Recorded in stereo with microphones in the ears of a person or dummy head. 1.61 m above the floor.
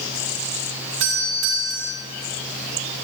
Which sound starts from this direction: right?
A doorbell, at 1.0 s.